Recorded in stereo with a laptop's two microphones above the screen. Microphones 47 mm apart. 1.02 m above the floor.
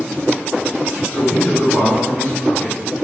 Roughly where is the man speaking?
Left.